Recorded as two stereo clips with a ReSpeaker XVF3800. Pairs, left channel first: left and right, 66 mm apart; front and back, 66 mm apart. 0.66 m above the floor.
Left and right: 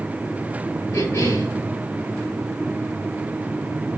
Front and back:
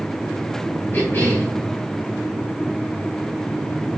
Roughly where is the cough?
Ahead left.